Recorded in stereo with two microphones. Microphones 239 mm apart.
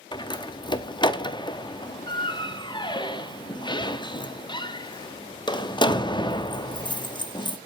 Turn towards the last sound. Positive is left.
turn(degrees=20)  # may be behind; listen again after turning